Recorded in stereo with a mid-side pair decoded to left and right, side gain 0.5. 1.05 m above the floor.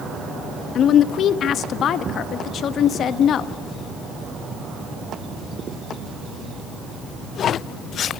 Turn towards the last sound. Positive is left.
turn(degrees=55)